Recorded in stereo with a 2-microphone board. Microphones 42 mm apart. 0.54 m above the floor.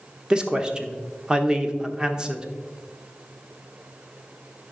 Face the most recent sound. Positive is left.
turn(degrees=-20)  # may be behind; listen again after turning